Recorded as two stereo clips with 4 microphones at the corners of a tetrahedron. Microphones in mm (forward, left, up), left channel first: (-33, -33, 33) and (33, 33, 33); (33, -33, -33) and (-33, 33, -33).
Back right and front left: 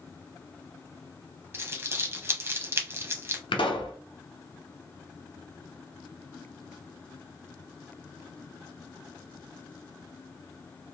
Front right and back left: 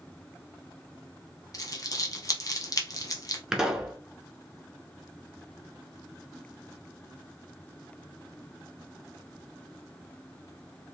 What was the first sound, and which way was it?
Crumpling, 10° right.